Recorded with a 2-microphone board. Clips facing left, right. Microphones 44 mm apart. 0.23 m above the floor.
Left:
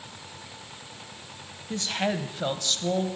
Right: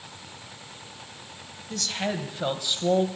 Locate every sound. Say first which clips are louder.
1.7 s a woman speaking: left 2 dB; 30° left (ahead or behind), 1.1 m; by 3.1 s 30° right (ahead or behind), 1.0 m